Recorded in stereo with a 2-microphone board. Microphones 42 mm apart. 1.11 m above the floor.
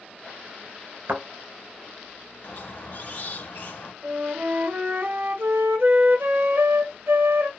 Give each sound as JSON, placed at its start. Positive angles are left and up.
{"t": 1.1, "sound": "a thud", "side_deg": -55, "distance_m": 1.7}
{"t": 2.4, "sound": "a squeak", "side_deg": 50, "distance_m": 0.8}
{"t": 4.0, "sound": "a flute", "side_deg": -65, "distance_m": 0.7}